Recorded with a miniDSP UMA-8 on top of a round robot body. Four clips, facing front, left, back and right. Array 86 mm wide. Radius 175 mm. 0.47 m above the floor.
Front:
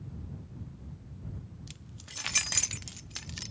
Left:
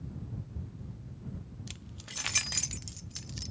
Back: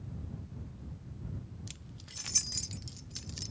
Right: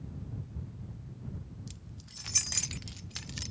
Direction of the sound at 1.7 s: 95° left.